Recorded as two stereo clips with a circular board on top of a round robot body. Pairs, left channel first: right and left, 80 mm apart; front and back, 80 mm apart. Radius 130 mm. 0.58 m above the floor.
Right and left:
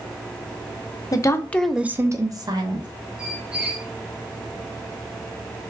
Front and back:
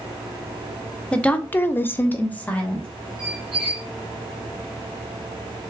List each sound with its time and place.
1.1 s a woman speaking: 75° right, 0.8 m; by 2.9 s 75° left, 1.2 m
3.2 s a squeak: 165° left, 1.3 m